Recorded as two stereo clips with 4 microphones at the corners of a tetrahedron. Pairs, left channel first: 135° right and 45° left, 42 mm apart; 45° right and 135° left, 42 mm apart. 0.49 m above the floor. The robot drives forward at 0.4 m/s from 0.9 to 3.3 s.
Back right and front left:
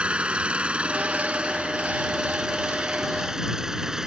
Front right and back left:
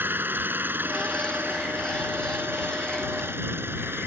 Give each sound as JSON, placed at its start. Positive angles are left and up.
{"t": 0.0, "sound": "an engine running", "azimuth_deg": 105}